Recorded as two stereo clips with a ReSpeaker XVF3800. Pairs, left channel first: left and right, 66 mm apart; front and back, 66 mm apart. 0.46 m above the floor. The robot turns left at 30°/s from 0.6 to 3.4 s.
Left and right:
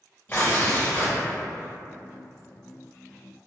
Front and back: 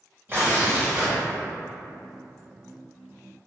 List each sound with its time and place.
0.3 s tearing paper: 135° left, 1.9 m; by 1.2 s 120° left, 1.9 m